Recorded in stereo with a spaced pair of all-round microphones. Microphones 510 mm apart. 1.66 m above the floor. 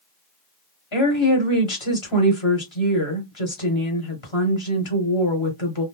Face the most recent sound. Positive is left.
turn(degrees=60)  # may be behind; listen again after turning